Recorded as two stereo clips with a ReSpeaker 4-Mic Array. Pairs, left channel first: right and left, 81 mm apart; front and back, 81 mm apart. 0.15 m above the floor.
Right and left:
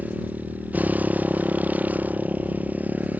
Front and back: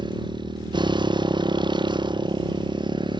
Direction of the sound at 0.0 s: 160° left.